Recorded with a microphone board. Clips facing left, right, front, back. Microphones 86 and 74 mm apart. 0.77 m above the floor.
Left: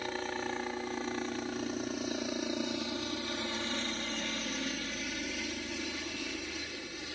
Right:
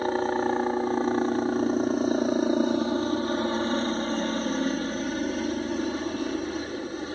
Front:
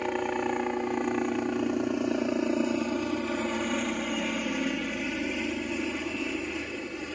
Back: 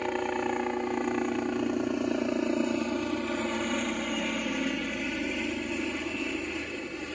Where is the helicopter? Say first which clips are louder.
Right 12 dB, front 1 dB; 90° right.